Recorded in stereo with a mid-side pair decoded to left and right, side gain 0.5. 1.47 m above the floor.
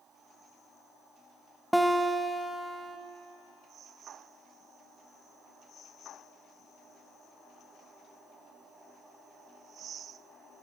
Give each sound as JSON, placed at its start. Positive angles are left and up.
{"t": 1.7, "sound": "a guitar", "azimuth_deg": 0, "distance_m": 0.9}